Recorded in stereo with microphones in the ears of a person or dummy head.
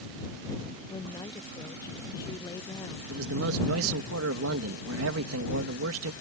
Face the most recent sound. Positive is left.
turn(degrees=-85)